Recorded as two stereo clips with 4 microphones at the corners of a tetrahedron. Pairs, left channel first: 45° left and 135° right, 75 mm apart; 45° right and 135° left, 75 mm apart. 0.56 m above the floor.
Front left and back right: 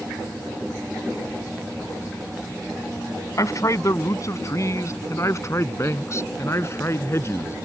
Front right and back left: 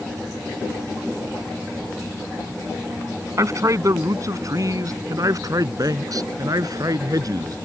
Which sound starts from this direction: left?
A man speaking, at 3.4 s.